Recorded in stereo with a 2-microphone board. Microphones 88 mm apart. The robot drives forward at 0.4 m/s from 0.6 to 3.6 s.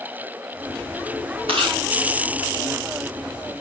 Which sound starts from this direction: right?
Chewing, at 1.5 s.